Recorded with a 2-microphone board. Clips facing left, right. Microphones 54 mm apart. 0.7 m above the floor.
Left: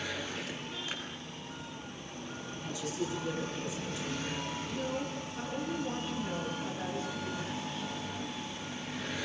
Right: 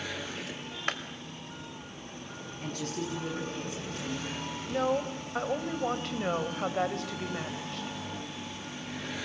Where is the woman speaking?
75° right (ahead or behind), 3.5 m.